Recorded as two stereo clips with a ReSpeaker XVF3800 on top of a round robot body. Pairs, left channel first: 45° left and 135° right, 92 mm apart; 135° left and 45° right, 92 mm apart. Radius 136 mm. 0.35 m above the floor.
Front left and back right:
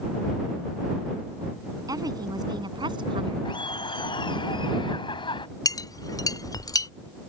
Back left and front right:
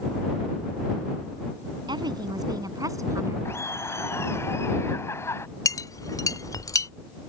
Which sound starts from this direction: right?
A woman speaking, at 1.9 s.